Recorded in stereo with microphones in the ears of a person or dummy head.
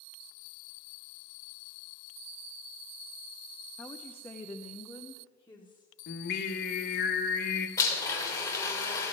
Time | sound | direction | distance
3.8 | a woman speaking | 10° left (ahead or behind) | 0.5 m
6.1 | singing | 50° left (ahead or behind) | 1.4 m
7.8 | a blender | 20° left (ahead or behind) | 2.5 m